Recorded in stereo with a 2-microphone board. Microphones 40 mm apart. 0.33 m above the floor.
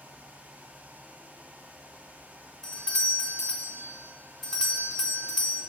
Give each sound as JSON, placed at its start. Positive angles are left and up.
{"t": 2.6, "sound": "a doorbell", "side_deg": 10, "distance_m": 1.7}